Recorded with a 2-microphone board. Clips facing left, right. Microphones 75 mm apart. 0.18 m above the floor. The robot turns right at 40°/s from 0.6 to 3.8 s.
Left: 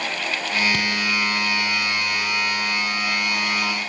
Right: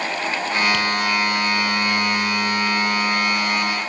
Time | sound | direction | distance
0.7 | tapping | 35° left (ahead or behind) | 3.5 m